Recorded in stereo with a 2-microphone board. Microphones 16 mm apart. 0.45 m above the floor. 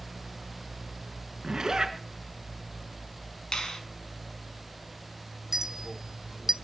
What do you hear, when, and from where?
1.4 s a zipper: 45° right (ahead or behind), 3.5 m
3.5 s a finger snap: 55° left (ahead or behind), 4.5 m
5.5 s a clink: 35° right (ahead or behind), 0.9 m